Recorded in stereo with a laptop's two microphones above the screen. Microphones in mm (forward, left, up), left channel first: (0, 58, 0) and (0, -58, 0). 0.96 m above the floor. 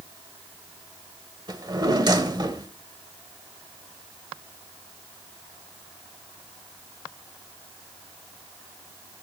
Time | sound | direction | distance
1.5 | a drawer | 35° right (ahead or behind) | 1.0 m